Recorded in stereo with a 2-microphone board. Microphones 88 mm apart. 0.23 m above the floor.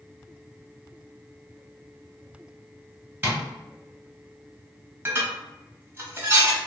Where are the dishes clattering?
25° right (ahead or behind), 1.0 m.